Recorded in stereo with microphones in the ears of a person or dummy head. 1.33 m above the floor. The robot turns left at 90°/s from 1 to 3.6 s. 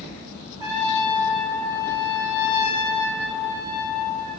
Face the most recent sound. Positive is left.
turn(degrees=-25)